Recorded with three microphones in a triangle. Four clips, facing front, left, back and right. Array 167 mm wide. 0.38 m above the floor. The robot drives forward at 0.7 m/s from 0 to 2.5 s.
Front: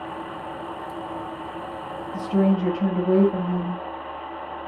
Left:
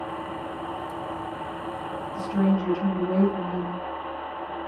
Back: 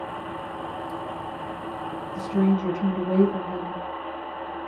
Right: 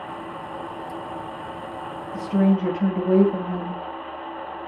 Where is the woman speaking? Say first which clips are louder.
Right 4 dB, front 2 dB; 45° right, 2.5 m; by 3.8 s 50° right, 2.5 m.